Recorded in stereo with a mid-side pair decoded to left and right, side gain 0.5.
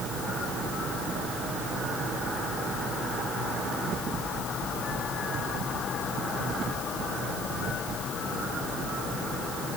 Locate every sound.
Only background noise.